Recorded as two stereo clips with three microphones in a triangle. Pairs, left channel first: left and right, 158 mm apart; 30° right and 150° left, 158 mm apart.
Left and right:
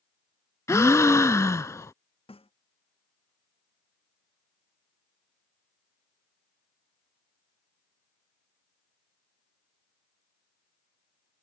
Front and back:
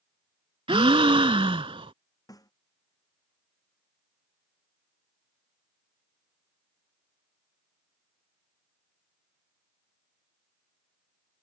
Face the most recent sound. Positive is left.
turn(degrees=35)